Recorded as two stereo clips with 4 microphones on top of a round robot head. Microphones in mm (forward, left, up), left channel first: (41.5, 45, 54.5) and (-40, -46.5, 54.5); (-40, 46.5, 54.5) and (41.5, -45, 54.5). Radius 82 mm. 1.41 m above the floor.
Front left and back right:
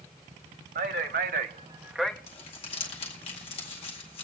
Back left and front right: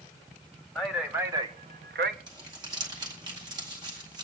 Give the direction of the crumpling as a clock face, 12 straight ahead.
12 o'clock.